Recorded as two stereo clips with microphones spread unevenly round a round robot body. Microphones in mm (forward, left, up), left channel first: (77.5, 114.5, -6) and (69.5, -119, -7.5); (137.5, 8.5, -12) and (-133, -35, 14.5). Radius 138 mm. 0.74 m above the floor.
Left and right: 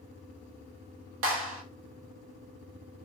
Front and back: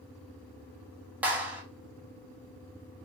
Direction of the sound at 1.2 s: 85° right.